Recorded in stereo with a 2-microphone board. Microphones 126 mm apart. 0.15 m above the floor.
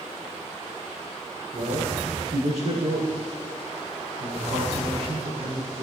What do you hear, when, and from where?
1.5 s a man speaking: 75° right (ahead or behind), 7.5 m; by 5.8 s 70° right (ahead or behind), 9.5 m